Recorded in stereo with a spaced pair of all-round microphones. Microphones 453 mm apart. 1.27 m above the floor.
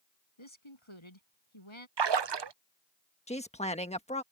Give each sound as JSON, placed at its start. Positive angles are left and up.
{"t": 0.4, "sound": "a woman speaking", "side_deg": 80}
{"t": 2.0, "sound": "a splash", "side_deg": -60}
{"t": 3.3, "sound": "a woman speaking", "side_deg": 15}